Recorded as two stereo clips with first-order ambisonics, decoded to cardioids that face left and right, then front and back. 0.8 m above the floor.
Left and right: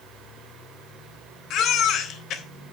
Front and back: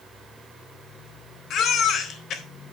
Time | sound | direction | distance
1.5 | a baby crying | 50° left | 1.0 m